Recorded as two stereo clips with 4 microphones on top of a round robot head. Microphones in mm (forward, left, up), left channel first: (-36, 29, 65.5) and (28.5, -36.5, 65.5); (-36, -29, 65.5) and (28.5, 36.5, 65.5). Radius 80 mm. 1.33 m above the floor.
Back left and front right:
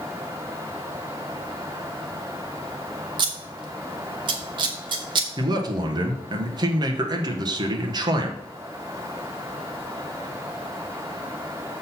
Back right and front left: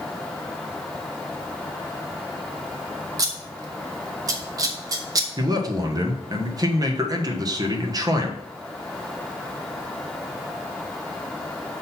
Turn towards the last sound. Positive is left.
turn(degrees=0)